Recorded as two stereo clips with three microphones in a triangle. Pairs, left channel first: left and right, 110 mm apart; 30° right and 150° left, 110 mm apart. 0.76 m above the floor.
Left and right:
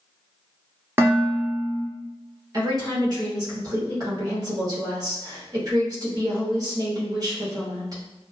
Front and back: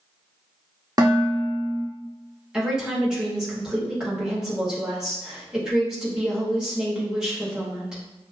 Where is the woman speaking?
125° right, 1.5 m.